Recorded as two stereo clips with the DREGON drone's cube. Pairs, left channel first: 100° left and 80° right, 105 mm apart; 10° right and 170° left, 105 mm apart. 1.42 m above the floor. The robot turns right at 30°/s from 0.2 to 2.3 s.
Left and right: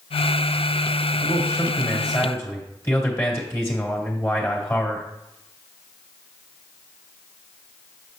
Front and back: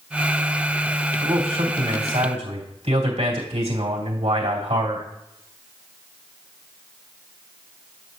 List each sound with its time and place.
1.2 s a man speaking: 135° left, 2.5 m; by 5.1 s 165° left, 2.5 m